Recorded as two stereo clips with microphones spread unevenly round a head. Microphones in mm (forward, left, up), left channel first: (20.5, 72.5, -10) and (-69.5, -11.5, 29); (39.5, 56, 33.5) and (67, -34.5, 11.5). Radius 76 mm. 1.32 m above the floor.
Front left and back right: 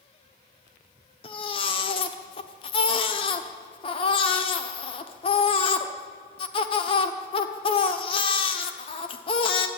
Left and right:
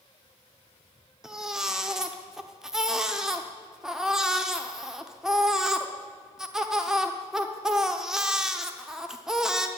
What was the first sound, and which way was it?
A baby crying, 40° left.